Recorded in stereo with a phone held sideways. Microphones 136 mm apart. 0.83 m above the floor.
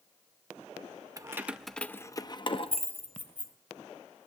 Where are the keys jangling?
25° right (ahead or behind), 0.6 m; by 3.5 s 60° left (ahead or behind), 1.2 m.